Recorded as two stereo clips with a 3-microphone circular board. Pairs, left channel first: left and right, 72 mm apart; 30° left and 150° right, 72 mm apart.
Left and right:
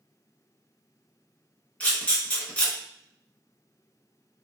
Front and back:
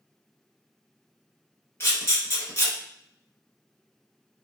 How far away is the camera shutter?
About 1.1 m.